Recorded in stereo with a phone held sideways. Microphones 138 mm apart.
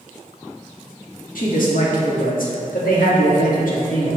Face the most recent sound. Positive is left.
turn(degrees=75)  # may be behind; listen again after turning